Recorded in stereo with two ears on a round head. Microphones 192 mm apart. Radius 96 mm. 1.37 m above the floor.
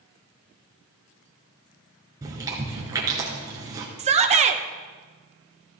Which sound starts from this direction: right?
A shout, at 4.0 s.